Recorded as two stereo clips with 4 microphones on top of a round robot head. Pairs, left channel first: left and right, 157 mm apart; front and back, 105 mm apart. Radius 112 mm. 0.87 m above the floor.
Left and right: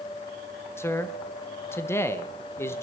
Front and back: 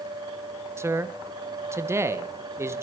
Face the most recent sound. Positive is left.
turn(degrees=150)